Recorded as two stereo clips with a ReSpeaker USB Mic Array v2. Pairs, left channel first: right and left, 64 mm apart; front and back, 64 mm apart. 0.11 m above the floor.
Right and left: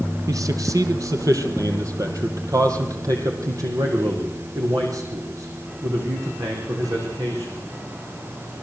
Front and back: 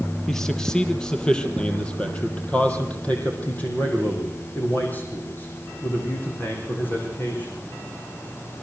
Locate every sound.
0.3 s a man speaking: 85° left, 3 m; by 7.6 s 60° left, 8.5 m